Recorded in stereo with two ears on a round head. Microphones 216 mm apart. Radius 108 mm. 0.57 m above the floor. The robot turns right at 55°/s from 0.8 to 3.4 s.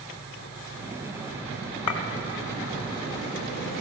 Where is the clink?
70° left (ahead or behind), 1.0 m; by 2.0 s 60° left (ahead or behind), 1.0 m.